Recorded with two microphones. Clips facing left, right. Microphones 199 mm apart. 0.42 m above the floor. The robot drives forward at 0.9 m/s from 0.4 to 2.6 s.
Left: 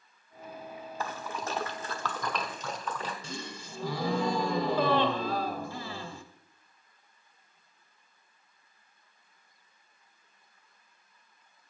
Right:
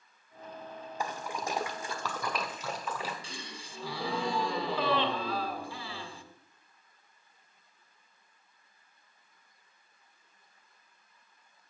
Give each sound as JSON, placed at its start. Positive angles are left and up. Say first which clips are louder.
{"t": 1.0, "sound": "a splash", "louder": "right 1 dB", "side_deg": -15, "distance_m": 1.1}
{"t": 3.2, "sound": "a gasp", "louder": "left 5 dB", "side_deg": 45, "distance_m": 0.8}